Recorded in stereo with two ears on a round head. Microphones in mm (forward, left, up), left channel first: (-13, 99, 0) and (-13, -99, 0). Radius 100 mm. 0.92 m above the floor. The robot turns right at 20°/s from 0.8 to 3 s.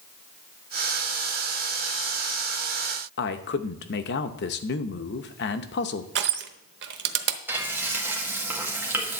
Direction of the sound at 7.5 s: 10° right (ahead or behind).